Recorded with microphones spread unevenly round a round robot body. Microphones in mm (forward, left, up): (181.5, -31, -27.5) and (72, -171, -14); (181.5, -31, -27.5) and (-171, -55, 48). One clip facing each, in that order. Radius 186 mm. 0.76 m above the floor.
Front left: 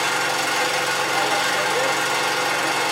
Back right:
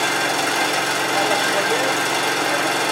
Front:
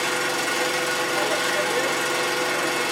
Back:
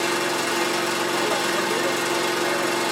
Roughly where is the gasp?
I don't hear a gasp.